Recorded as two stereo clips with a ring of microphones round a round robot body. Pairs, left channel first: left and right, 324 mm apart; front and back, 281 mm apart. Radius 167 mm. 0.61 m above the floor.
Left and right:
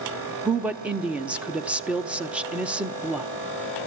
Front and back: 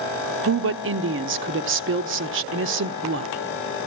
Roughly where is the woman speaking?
Behind.